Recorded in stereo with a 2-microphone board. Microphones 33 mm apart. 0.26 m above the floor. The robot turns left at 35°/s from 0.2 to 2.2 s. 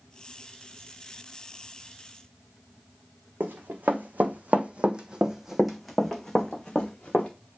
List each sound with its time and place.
3.4 s running footsteps: 75° right (ahead or behind), 1.2 m; by 7.3 s 25° left (ahead or behind), 1.5 m